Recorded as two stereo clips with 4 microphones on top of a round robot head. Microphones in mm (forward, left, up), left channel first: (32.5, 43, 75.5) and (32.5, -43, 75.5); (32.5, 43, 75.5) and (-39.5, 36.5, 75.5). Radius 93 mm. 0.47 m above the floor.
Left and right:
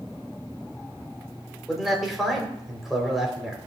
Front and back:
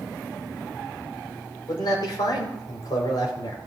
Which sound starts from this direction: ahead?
A man speaking, at 1.7 s.